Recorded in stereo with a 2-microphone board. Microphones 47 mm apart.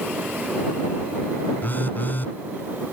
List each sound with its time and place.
1.6 s a phone buzzing: 45° left (ahead or behind)